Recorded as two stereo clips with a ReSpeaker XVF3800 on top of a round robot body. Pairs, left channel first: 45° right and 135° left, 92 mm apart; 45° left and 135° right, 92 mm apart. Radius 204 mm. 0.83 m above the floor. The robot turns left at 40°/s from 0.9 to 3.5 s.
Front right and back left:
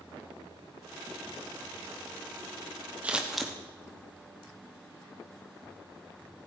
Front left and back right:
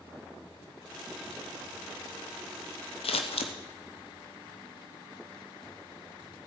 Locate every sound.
3.0 s scissors: 60° left, 0.9 m; by 3.5 s 40° left, 0.9 m